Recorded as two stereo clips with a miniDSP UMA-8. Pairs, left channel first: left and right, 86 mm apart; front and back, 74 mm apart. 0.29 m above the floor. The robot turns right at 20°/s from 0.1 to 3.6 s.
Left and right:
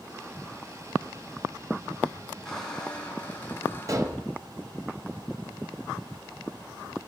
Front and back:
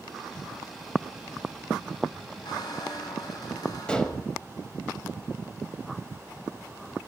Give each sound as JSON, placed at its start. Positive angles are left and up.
{"t": 2.5, "sound": "a squeak", "azimuth_deg": 5, "distance_m": 1.9}
{"t": 3.9, "sound": "dishes clattering", "azimuth_deg": -70, "distance_m": 1.0}